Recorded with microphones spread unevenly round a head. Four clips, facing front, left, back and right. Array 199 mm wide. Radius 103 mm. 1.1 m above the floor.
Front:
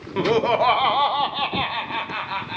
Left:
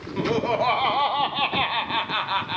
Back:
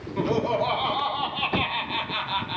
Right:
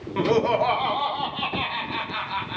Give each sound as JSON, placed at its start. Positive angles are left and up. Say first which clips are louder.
{"t": 0.2, "sound": "laughter", "louder": "right 2 dB, front 5 dB", "azimuth_deg": -15, "distance_m": 1.0}